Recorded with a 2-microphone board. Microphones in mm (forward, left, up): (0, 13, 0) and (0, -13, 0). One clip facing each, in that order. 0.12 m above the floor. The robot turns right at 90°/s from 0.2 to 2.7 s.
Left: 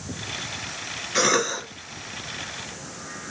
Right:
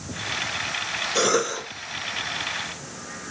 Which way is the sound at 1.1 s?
65° left.